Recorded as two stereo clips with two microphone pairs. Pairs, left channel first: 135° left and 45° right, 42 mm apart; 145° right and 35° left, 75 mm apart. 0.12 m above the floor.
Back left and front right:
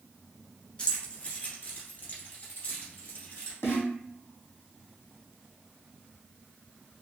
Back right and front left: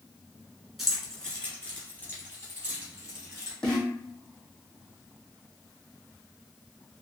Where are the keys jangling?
115° left, 1.2 m; by 3.5 s 170° left, 2.5 m.